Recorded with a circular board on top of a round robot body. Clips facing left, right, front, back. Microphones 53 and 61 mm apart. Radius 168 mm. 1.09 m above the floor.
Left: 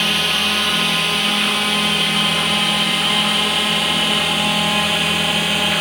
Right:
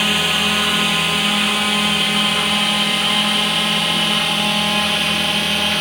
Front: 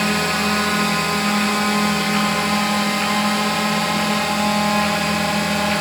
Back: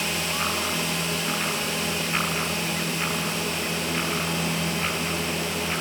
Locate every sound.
0.0 s a drone: 5° right; by 5.8 s 5° left